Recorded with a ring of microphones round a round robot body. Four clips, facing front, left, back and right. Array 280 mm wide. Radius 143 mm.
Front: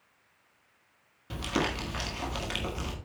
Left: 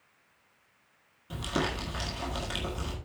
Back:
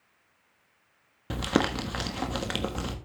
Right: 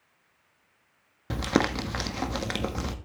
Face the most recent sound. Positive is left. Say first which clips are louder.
# right 6 dB, back 4 dB
turn(degrees=-130)